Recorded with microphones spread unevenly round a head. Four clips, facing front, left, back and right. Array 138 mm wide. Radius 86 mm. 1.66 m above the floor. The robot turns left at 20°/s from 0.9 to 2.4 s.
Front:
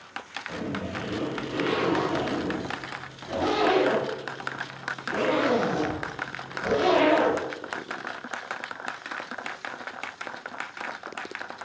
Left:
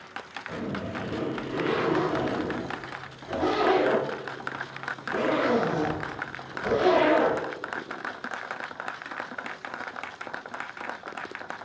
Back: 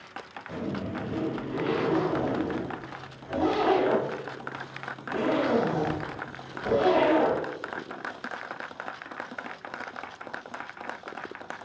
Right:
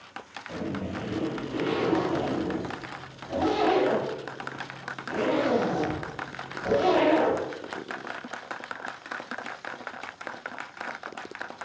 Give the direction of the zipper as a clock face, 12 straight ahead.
10 o'clock.